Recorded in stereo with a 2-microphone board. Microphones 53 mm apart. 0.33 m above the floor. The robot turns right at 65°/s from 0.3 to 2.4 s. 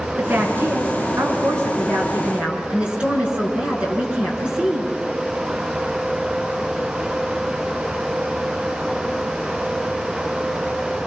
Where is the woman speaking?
160° right, 5 m; by 4.9 s 20° right, 5 m.